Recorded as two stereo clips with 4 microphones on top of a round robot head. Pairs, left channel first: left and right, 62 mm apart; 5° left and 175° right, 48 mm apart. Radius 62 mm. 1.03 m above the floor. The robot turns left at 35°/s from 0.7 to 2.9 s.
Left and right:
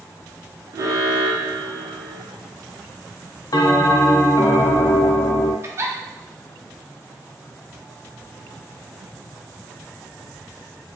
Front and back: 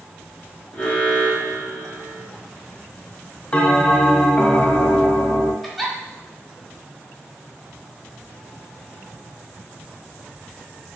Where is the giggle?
85° right, 0.6 m.